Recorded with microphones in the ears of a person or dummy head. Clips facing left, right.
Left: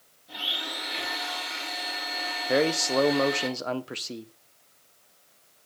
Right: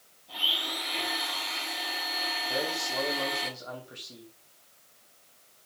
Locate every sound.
0.3 s a blender: 15° left (ahead or behind), 6.5 m
2.5 s a man speaking: 80° left, 1.1 m